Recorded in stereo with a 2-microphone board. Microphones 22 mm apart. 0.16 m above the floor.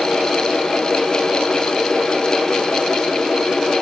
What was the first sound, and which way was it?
Only background noise.